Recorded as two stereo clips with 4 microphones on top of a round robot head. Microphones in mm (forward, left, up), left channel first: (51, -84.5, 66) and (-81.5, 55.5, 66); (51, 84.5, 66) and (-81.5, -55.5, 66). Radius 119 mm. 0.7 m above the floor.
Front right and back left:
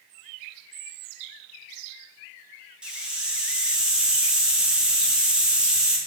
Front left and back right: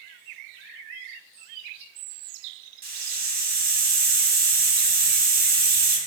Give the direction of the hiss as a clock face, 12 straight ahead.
5 o'clock.